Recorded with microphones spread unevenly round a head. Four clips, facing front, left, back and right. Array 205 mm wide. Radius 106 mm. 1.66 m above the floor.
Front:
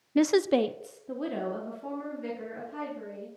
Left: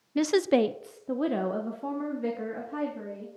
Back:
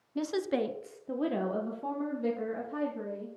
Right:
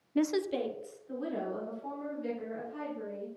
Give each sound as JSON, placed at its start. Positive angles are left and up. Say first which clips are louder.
{"t": 0.1, "sound": "a woman speaking", "louder": "left 7 dB, front 8 dB", "azimuth_deg": 15, "distance_m": 0.7}